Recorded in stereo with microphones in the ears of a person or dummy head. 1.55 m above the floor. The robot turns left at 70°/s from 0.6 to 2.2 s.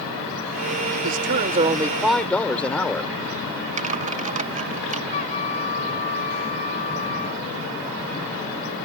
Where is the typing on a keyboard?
45° right (ahead or behind).